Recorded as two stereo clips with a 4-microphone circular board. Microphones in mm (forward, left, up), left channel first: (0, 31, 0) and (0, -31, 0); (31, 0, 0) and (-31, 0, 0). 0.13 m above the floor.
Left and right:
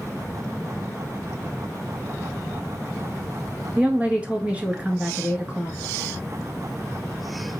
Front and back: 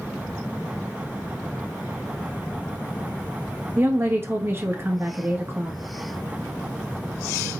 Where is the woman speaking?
150° right, 1.4 m.